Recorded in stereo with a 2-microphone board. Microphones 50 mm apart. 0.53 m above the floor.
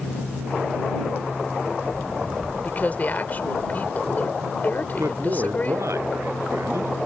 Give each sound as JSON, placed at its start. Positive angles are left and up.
{"t": 2.6, "sound": "a woman speaking", "side_deg": 35}
{"t": 4.8, "sound": "a man speaking", "side_deg": -75}